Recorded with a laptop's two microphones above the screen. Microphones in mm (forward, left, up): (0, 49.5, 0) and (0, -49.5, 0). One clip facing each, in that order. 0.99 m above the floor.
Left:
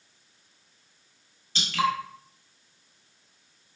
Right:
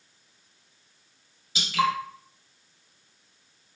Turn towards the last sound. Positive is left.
turn(degrees=-5)  # may be behind; listen again after turning